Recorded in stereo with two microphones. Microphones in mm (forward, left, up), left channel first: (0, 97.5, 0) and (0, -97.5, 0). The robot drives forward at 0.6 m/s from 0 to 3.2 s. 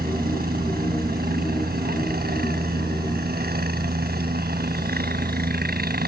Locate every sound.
0.0 s a helicopter: 50° right (ahead or behind)